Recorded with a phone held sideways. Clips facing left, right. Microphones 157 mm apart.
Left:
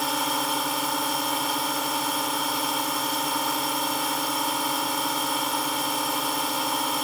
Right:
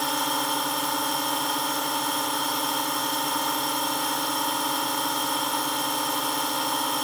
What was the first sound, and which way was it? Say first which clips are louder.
A drone: even; 5° left (ahead or behind).